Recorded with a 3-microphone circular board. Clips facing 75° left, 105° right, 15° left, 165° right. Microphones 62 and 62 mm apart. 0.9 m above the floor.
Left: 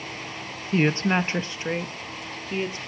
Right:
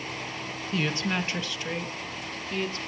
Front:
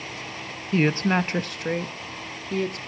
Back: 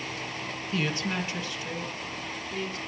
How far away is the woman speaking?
About 0.8 m.